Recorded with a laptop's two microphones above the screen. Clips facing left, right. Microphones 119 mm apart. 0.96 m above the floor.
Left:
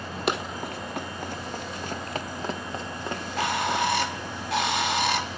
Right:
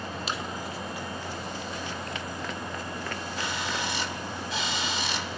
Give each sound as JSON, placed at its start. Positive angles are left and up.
{"t": 0.3, "sound": "running footsteps", "side_deg": 60, "distance_m": 1.8}
{"t": 3.1, "sound": "a bird", "side_deg": 60, "distance_m": 1.1}